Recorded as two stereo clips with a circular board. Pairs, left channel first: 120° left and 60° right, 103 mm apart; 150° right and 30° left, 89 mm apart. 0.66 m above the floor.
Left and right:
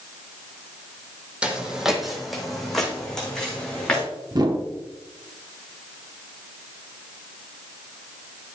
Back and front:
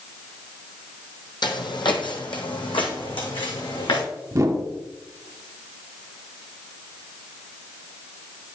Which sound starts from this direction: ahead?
A whoosh, at 4.3 s.